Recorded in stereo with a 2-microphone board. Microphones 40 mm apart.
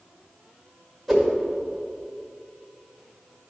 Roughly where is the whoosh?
Centre.